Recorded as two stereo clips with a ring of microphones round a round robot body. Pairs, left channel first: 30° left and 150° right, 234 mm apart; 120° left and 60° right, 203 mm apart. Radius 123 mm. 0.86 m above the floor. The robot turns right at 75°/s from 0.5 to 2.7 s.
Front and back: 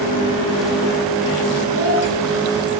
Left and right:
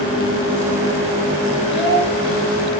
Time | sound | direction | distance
1.7 | a child speaking | 15° left | 4 m